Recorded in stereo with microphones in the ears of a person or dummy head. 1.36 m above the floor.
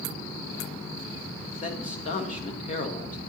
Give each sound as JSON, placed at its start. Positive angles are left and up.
{"t": 1.6, "sound": "a man speaking", "side_deg": 40, "distance_m": 1.3}